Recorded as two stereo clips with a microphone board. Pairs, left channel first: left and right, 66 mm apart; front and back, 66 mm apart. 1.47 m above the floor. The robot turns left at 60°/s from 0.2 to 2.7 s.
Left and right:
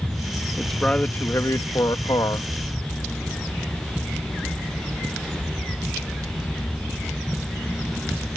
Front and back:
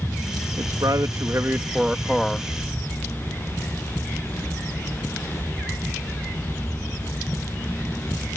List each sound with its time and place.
0.6 s a man speaking: straight behind; by 2.5 s 70° left